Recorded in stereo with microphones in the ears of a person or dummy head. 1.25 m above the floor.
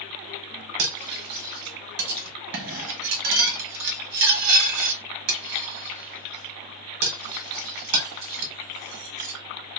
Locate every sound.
0.8 s cutlery clinking: 65° right (ahead or behind), 0.9 m